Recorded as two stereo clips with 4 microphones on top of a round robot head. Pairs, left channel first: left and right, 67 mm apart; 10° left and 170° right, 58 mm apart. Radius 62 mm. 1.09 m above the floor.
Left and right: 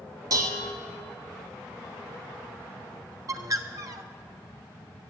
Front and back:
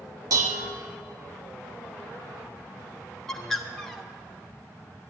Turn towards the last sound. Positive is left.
turn(degrees=-70)